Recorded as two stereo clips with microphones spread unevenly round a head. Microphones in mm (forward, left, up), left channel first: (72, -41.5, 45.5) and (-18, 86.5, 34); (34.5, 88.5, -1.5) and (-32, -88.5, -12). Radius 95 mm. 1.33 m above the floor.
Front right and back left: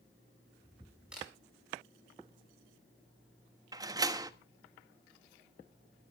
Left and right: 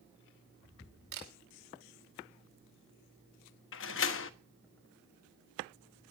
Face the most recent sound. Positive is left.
turn(degrees=55)